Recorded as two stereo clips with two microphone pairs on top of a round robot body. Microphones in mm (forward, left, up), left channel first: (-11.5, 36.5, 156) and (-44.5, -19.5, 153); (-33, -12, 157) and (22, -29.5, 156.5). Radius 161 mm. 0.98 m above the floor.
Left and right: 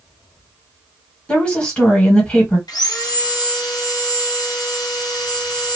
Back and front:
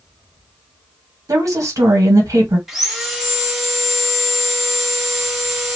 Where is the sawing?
70° left, 1.0 m.